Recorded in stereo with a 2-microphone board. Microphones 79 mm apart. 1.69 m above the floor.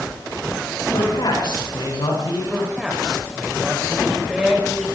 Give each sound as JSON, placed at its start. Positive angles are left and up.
{"t": 0.9, "sound": "a man speaking", "side_deg": 75, "distance_m": 8.5}
{"t": 2.5, "sound": "a man speaking", "side_deg": -10, "distance_m": 10.0}